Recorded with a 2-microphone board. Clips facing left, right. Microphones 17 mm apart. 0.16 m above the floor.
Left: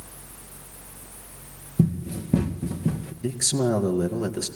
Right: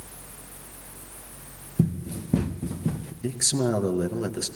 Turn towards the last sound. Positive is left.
turn(degrees=-5)  # may be behind; listen again after turning